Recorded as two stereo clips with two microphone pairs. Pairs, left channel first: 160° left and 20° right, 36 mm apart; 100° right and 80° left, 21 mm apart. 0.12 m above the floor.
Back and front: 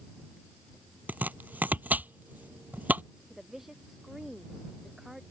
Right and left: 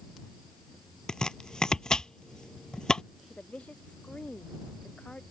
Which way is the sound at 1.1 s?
50° right.